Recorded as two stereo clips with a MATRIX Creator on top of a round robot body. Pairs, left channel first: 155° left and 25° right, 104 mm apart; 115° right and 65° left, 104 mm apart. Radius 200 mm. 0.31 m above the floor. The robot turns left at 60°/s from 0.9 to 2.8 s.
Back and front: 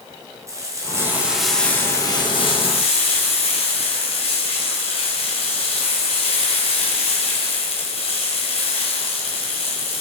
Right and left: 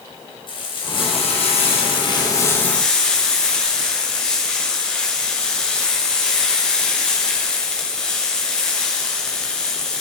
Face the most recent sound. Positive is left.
turn(degrees=165)